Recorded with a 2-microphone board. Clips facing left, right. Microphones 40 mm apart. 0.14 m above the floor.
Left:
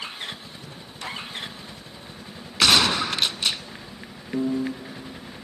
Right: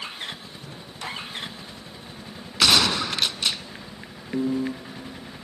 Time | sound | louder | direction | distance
2.6 | a gunshot | left 1 dB | 10° left (ahead or behind) | 0.6 m
4.3 | a piano | even | centre (ahead or behind) | 1.2 m